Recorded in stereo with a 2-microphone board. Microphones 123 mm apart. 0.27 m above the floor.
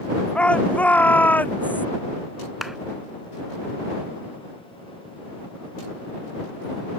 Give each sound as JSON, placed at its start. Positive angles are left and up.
{"t": 0.3, "sound": "a shout", "side_deg": 10}
{"t": 2.6, "sound": "a clap", "side_deg": 0}